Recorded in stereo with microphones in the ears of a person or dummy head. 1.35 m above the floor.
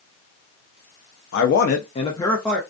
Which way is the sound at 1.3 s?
65° left (ahead or behind).